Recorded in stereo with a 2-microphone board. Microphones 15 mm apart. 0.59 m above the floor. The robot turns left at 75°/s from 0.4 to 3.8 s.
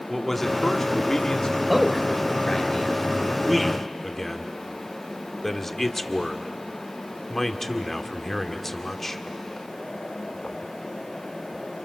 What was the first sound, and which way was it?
A man speaking, 160° left.